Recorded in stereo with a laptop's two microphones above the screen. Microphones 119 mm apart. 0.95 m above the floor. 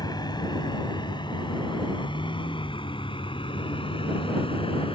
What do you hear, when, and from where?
0.0 s a vehicle: 35° left (ahead or behind); by 4.9 s 50° left (ahead or behind)